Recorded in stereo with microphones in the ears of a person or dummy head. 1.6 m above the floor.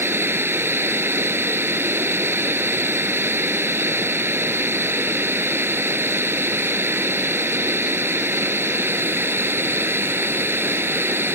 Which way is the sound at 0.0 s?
10° right (ahead or behind).